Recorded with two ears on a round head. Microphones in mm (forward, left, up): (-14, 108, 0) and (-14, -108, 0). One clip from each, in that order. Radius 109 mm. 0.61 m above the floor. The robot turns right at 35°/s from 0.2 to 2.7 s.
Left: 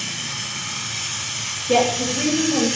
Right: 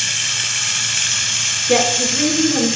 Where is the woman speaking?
55° right, 8.5 m; by 2.7 s 20° right, 8.5 m.